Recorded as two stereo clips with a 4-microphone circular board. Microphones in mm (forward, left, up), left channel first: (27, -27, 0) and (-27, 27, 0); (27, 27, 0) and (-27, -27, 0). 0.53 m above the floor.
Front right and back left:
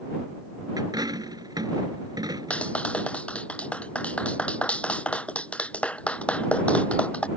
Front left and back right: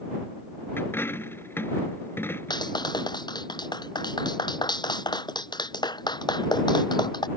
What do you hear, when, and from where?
0.8 s a dropped coin: 105° left
2.5 s a clap: 30° left